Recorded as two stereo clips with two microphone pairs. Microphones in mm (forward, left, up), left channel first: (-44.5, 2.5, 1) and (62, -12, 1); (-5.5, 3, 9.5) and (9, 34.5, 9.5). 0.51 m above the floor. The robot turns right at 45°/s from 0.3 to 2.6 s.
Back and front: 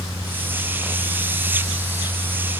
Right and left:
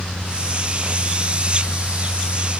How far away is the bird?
No bird in this recording.